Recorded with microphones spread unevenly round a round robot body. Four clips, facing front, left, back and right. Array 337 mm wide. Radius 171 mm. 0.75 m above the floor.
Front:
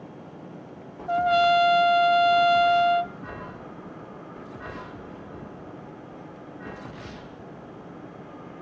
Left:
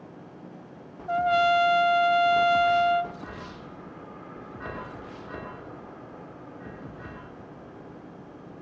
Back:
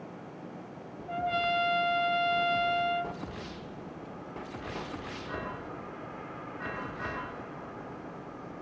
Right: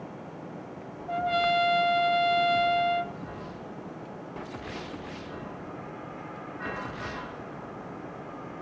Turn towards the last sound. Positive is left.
turn(degrees=0)